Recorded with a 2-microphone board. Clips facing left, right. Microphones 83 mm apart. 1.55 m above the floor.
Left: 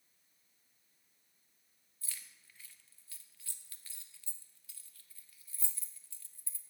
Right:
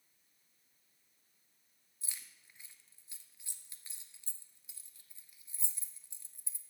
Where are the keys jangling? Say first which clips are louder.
Even; 20° right (ahead or behind), 0.9 m.